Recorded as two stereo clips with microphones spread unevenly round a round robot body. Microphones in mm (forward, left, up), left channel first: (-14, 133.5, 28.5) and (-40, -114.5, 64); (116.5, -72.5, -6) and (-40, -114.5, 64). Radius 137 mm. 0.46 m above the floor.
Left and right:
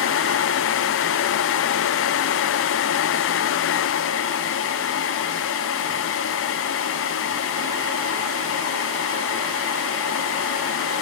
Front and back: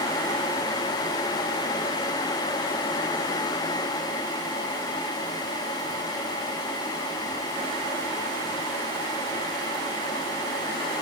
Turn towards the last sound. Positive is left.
No sound to turn to.